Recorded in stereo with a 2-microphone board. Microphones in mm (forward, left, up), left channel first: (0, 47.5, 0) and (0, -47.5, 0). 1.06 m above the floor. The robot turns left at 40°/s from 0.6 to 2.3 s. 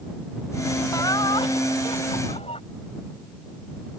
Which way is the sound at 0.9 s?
145° left.